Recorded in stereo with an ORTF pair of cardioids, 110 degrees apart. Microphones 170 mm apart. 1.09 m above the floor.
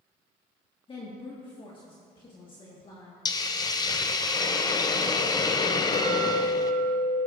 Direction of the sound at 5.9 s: 45° left.